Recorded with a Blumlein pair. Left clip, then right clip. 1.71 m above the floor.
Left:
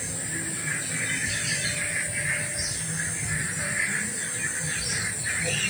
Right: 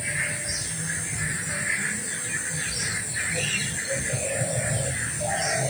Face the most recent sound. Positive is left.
No sound to turn to.